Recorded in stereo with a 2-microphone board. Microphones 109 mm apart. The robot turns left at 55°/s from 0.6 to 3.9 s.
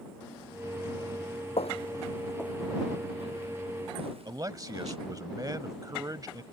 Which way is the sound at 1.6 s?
75° left (ahead or behind).